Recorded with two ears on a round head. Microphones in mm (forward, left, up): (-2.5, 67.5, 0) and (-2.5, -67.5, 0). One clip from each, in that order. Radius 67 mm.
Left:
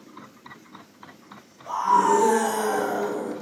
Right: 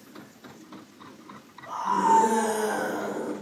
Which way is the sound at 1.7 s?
80° left.